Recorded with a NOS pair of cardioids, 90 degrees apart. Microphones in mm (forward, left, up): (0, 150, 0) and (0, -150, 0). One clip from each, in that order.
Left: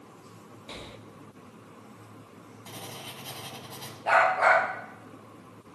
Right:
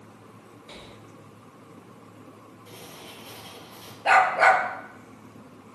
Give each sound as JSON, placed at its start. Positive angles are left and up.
{"t": 0.7, "sound": "breathing", "azimuth_deg": 20, "distance_m": 0.7}
{"t": 2.7, "sound": "writing", "azimuth_deg": 50, "distance_m": 3.0}
{"t": 4.0, "sound": "a dog barking", "azimuth_deg": -60, "distance_m": 6.0}